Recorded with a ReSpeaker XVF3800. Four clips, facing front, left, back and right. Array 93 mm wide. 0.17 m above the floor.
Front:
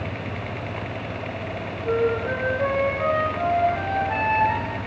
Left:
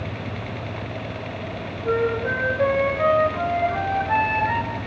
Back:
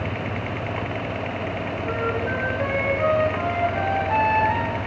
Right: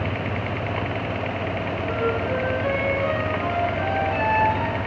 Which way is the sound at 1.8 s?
100° left.